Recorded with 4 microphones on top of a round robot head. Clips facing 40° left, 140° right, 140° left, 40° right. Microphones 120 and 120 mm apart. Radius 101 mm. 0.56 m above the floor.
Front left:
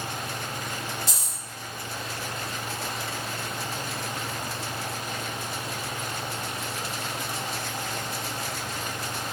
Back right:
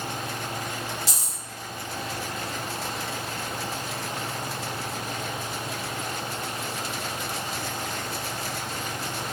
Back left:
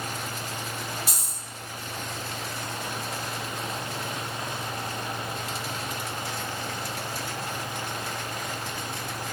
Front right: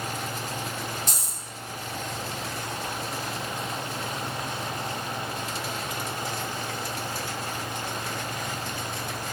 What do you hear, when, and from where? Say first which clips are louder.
1.1 s a dropped coin: even, front right 1 dB; 140° right, 0.9 m